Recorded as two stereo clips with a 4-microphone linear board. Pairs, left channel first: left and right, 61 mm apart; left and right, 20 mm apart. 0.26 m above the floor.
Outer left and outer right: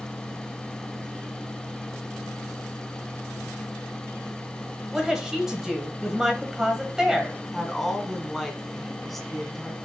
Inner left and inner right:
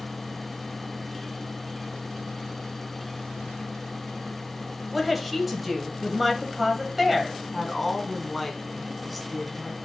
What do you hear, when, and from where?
4.9 s a woman speaking: 10° right (ahead or behind), 1.2 m
7.5 s a woman speaking: centre (ahead or behind), 1.9 m